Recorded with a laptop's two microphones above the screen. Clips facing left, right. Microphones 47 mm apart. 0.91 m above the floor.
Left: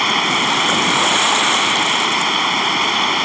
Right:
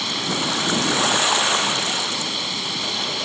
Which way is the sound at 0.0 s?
55° left (ahead or behind).